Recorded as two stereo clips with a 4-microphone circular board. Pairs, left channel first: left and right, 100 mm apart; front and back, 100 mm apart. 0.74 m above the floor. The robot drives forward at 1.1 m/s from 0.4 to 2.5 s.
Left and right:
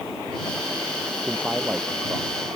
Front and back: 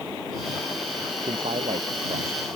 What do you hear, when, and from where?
1.2 s a man speaking: 165° right